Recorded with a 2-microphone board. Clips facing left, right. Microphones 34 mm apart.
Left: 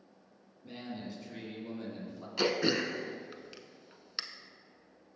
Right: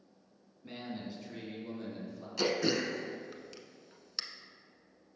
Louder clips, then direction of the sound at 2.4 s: Left 1 dB; 25° left (ahead or behind).